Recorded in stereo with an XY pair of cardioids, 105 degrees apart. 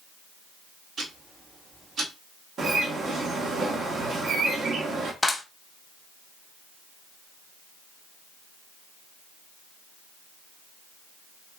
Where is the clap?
20° left, 1.0 m.